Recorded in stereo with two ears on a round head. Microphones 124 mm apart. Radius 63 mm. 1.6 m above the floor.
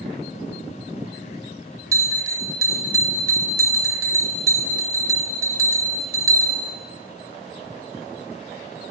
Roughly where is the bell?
Right.